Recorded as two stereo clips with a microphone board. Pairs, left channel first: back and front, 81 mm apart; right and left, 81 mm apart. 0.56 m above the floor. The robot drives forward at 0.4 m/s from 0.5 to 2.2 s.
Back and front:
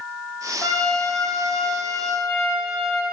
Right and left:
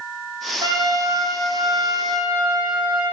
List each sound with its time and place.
0.6 s a trumpet: 115° left, 2 m; by 3.0 s 130° left, 2.5 m